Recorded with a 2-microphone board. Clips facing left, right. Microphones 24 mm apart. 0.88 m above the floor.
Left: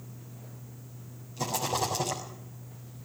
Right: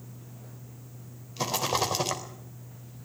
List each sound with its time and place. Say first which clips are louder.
1.4 s a rattle: right 2 dB; 60° right (ahead or behind), 4 m